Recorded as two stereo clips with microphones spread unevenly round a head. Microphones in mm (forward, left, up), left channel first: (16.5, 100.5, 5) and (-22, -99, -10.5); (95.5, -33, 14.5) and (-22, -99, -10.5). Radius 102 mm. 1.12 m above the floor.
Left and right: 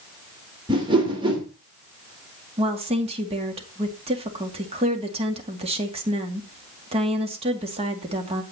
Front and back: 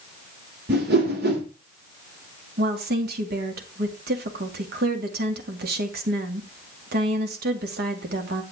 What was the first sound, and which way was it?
A whoosh, 170° right.